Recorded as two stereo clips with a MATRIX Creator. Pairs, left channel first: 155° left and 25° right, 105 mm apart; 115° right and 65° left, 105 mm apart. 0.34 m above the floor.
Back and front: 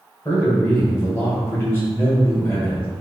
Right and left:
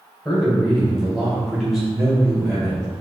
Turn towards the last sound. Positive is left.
turn(degrees=155)